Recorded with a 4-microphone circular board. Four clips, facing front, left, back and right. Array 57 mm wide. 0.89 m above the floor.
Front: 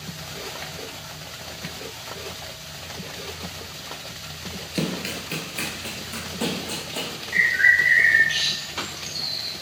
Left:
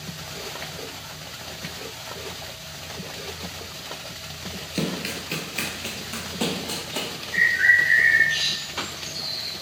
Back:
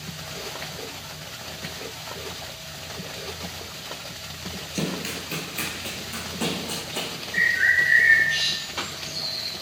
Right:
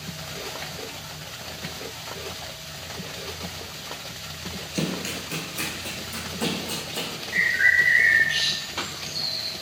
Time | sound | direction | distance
4.8 | running footsteps | 30° left | 0.9 m
7.3 | a bird | 10° right | 1.7 m